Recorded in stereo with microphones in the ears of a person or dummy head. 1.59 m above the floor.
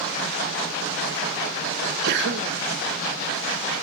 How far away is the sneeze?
About 1.6 m.